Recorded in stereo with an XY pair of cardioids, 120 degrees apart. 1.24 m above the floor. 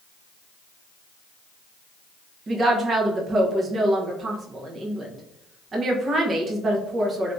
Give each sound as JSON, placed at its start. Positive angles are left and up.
{"t": 2.5, "sound": "a woman speaking", "azimuth_deg": -35, "distance_m": 0.9}